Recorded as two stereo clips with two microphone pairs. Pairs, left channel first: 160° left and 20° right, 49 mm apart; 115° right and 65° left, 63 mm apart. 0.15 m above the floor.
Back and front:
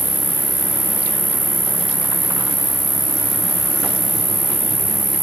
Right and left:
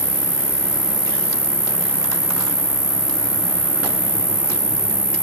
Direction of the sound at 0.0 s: 110° right.